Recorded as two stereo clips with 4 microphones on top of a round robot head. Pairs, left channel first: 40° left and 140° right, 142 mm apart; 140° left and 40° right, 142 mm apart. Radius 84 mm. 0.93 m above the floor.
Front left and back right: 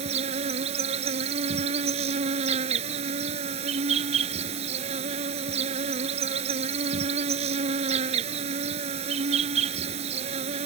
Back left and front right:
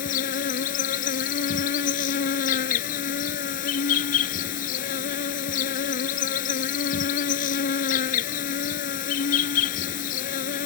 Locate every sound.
0.0 s an insect: 170° left